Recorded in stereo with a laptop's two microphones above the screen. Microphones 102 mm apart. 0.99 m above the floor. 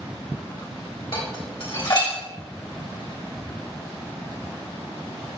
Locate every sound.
1.1 s dishes clattering: 50° left (ahead or behind), 3.5 m